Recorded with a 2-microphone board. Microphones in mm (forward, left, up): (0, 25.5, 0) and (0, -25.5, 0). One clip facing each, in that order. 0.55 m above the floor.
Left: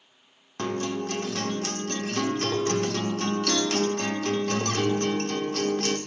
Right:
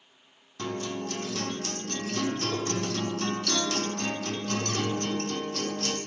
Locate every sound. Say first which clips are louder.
0.6 s a guitar: left 4 dB; 60° left (ahead or behind), 0.8 m